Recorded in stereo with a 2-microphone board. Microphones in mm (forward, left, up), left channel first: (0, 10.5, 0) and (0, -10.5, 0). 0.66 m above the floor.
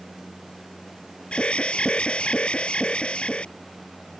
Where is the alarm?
70° left (ahead or behind).